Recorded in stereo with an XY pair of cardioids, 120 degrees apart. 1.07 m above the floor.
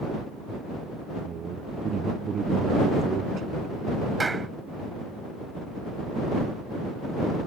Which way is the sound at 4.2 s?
20° right.